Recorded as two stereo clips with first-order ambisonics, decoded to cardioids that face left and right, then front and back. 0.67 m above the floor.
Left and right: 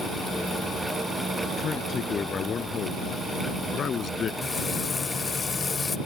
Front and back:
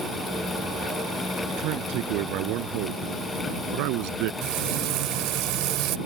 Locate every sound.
1.6 s a man speaking: 155° left
4.4 s frying: 160° left